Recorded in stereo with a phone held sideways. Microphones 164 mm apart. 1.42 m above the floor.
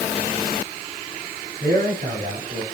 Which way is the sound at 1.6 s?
75° right (ahead or behind).